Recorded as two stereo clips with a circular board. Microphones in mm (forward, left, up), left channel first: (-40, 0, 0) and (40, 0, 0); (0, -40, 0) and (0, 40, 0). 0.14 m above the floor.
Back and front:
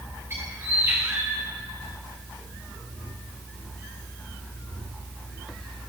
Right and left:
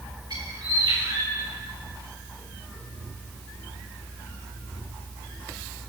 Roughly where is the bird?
Ahead left.